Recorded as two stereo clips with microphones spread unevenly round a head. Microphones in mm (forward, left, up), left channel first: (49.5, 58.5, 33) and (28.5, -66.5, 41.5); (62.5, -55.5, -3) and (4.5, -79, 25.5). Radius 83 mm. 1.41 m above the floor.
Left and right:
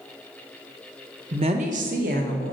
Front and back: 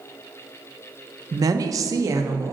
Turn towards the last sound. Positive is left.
turn(degrees=-130)